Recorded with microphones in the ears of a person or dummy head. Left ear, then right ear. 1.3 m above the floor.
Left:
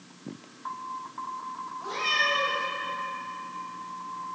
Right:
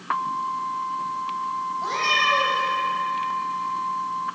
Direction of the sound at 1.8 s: 55° right (ahead or behind).